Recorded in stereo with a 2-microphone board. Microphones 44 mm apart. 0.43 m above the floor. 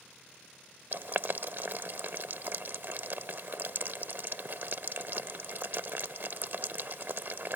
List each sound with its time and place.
0.9 s boiling: 55° right (ahead or behind)